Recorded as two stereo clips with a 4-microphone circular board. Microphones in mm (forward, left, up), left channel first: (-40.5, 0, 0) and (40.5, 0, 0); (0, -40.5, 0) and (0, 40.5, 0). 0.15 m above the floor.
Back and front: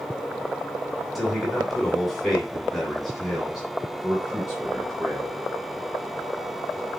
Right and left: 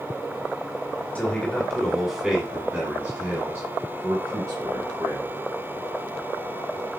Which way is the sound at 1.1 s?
90° right.